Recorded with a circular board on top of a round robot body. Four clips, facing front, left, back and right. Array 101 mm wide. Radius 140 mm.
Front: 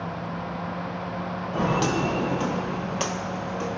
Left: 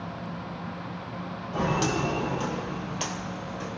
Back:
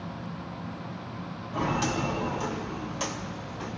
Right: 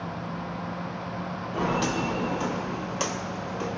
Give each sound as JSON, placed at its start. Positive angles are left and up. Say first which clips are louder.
{"t": 1.5, "sound": "footsteps", "louder": "even, front 4 dB", "azimuth_deg": 20, "distance_m": 1.8}